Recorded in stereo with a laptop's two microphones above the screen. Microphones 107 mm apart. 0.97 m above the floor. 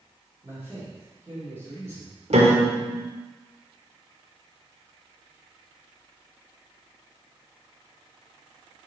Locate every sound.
0.4 s a man speaking: 20° right (ahead or behind), 3 m
2.3 s a piano: 75° right (ahead or behind), 1.4 m